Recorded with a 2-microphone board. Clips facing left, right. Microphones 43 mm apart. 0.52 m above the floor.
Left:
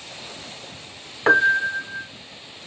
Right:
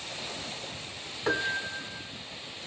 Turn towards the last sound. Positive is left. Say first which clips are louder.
# left 13 dB
turn(degrees=55)  # may be behind; listen again after turning